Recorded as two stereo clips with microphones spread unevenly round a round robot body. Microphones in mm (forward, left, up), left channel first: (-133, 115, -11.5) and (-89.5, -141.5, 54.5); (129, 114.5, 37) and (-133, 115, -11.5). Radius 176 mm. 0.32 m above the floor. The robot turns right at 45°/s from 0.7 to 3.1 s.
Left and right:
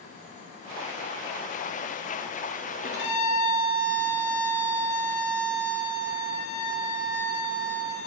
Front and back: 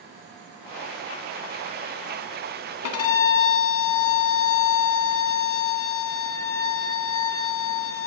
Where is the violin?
30° left, 0.7 m; by 8.1 s 45° left, 0.7 m.